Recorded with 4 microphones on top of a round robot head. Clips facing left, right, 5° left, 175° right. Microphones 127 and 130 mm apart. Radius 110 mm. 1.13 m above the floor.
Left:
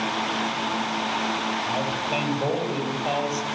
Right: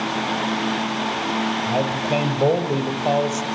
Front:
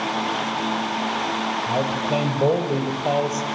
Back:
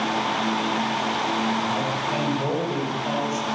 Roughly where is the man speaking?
Ahead right.